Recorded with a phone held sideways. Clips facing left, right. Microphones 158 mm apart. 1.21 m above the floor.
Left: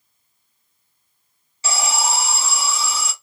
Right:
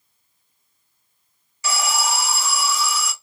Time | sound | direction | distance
1.6 | an alarm | 30° left (ahead or behind) | 0.9 m